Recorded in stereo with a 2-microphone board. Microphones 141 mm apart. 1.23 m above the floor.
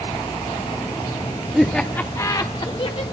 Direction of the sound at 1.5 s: 5° right (ahead or behind).